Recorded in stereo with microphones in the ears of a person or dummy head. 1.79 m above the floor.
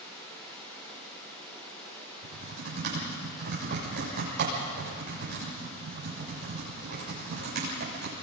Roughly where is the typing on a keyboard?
Right.